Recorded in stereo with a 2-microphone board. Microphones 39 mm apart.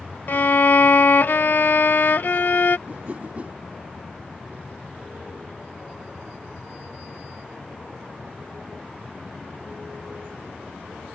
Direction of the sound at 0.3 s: 55° left (ahead or behind).